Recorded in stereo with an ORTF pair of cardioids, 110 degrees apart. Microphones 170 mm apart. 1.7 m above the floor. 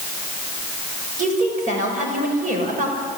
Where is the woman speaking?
50° right, 8.5 m.